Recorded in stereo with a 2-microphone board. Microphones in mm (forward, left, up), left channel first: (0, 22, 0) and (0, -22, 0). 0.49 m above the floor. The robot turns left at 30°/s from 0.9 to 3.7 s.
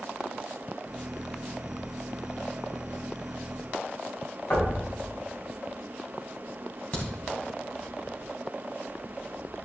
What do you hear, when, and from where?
4.5 s knocking: 55° left (ahead or behind), 3.5 m
6.9 s a crack: 35° left (ahead or behind), 2.5 m